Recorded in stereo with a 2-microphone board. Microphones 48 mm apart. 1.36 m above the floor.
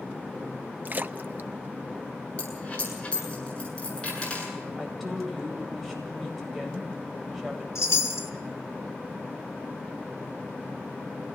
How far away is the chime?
About 2 m.